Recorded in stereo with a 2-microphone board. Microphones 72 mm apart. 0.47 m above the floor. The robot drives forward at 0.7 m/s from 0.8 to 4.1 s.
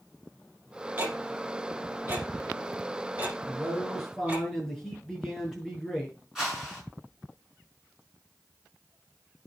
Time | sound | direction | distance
1.0 | ticking | 25° right (ahead or behind) | 5.5 m
3.5 | a man speaking | 5° left (ahead or behind) | 5.5 m
6.3 | a whoosh | 5° right (ahead or behind) | 6 m